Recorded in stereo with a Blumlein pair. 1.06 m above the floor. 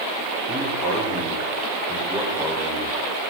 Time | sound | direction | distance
0.5 | a man speaking | 5° left | 3 m